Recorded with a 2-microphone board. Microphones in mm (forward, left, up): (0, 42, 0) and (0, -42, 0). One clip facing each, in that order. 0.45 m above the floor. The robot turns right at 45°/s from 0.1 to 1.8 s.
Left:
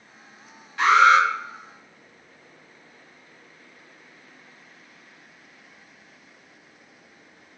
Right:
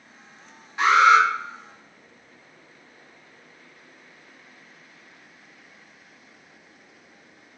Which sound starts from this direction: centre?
An alarm, at 0.8 s.